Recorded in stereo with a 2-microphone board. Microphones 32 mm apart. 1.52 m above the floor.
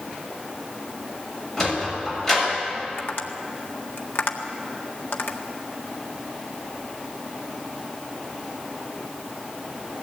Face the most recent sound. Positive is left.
turn(degrees=85)